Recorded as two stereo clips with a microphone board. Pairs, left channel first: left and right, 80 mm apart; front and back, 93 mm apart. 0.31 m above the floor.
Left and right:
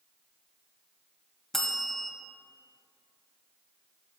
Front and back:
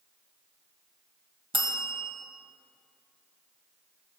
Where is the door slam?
I don't hear a door slam.